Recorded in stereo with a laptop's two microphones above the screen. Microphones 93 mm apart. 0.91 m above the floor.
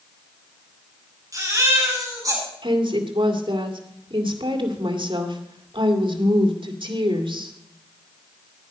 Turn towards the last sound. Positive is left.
turn(degrees=-65)  # may be behind; listen again after turning